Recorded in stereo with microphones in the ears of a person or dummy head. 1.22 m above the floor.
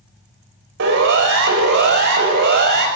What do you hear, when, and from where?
0.8 s a siren: 70° right (ahead or behind), 7.5 m; by 2.9 s 60° right (ahead or behind), 9.5 m